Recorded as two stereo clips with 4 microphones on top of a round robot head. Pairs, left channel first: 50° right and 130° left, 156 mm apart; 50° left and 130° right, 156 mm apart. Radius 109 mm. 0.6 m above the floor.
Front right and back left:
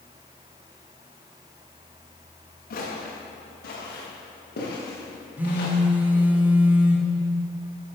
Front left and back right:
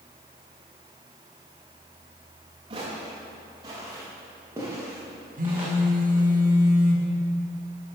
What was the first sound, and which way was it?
Footsteps, 70° right.